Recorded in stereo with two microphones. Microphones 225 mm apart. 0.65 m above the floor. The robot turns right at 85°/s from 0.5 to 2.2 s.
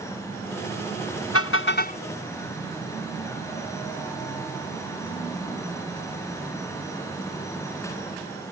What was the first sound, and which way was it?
A car horn, 95° left.